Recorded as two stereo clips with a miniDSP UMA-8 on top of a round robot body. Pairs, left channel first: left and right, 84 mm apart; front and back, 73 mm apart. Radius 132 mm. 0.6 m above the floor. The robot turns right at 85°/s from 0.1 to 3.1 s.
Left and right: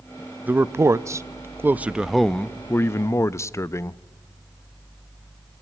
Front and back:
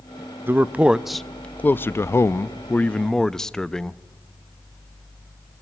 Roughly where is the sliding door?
No sliding door in this recording.